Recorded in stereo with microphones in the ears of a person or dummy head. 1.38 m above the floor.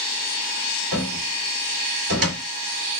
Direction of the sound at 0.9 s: 80° right.